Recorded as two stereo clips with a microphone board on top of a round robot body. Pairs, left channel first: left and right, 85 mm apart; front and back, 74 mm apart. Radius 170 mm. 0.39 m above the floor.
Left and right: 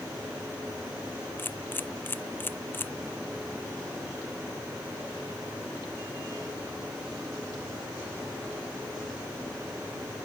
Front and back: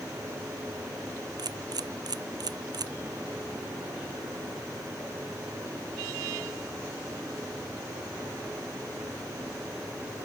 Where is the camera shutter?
155° left.